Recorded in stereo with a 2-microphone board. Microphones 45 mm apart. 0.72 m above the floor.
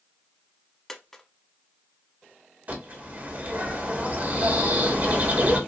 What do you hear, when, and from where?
0.9 s a dropped coin: 10° left (ahead or behind), 0.7 m
2.7 s a bird: 40° right (ahead or behind), 1.6 m